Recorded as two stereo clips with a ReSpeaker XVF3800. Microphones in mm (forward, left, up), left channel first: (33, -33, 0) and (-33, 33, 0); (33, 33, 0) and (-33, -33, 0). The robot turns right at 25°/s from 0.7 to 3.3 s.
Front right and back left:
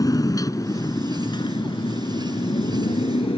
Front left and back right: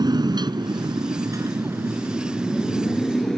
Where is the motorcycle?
95° right; by 3.4 s 40° right.